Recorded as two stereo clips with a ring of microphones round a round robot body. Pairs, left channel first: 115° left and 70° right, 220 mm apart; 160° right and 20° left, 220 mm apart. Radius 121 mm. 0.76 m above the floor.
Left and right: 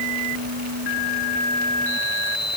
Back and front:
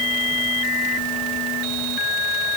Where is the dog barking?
No dog barking in this recording.